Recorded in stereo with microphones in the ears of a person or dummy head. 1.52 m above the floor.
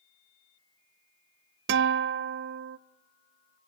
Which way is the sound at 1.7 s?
65° right (ahead or behind).